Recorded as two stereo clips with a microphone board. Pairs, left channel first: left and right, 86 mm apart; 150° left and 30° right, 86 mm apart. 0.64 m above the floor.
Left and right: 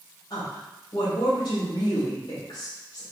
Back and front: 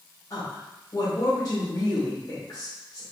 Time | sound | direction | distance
0.3 | a woman speaking | 110° left | 1.9 m